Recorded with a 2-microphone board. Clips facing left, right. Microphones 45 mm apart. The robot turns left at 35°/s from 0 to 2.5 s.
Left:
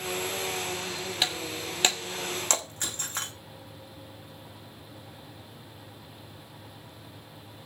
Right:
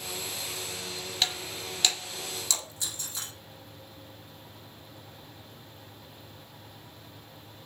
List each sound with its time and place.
1.2 s breaking glass: 10° left (ahead or behind), 1.7 m; by 3.3 s 50° left (ahead or behind), 1.7 m